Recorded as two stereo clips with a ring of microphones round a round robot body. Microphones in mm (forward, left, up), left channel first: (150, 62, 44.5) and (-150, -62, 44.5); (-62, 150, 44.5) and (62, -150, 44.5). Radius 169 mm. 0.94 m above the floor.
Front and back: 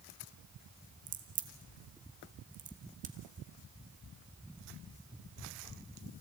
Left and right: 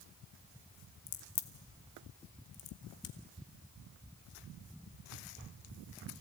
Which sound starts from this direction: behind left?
A crack, at 1.1 s.